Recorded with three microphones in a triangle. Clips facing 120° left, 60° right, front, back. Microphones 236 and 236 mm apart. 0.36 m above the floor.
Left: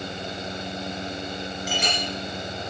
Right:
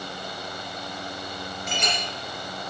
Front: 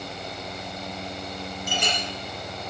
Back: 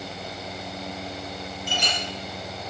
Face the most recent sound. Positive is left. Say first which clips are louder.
# left 1 dB, front 2 dB
turn(degrees=35)